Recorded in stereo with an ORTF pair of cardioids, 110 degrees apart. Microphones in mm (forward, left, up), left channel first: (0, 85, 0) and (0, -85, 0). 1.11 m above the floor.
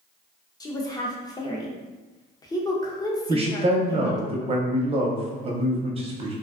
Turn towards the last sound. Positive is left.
turn(degrees=-35)